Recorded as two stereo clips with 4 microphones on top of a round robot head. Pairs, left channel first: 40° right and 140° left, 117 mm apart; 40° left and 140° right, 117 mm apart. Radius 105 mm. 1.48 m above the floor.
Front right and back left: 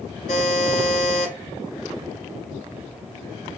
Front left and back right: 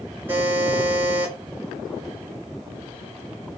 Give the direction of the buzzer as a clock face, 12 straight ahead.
2 o'clock.